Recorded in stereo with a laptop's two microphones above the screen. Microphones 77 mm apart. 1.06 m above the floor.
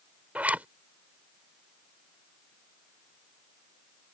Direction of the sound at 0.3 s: 20° right (ahead or behind).